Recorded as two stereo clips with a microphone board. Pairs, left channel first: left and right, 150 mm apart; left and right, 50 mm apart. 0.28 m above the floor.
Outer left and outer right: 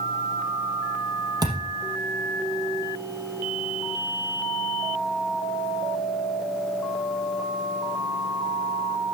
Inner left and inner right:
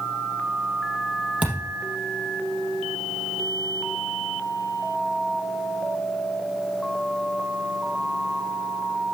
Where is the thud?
25° right (ahead or behind), 4 m.